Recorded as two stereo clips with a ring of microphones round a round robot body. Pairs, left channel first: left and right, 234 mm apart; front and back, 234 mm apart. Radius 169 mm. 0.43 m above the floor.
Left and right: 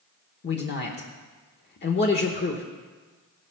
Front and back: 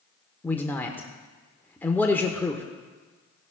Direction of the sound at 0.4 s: 80° left.